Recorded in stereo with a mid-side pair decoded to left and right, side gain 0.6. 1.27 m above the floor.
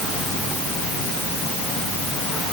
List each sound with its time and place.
Only background noise.